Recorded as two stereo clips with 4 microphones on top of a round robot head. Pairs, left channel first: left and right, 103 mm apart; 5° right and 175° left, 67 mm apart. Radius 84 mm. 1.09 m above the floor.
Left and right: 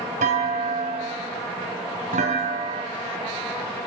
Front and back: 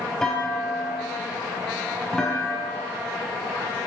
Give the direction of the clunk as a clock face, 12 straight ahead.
3 o'clock.